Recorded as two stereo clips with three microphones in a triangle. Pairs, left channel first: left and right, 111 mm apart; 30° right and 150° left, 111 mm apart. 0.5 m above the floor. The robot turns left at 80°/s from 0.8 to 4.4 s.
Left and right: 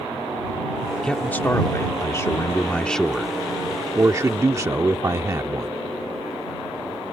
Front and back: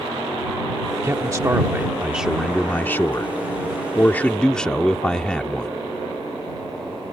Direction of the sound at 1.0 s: 165° left.